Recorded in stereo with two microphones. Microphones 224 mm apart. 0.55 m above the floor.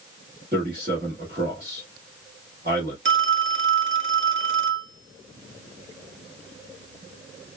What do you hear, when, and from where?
0.5 s a man speaking: 40° right (ahead or behind), 1.4 m
3.0 s a phone ringing: 60° right (ahead or behind), 0.7 m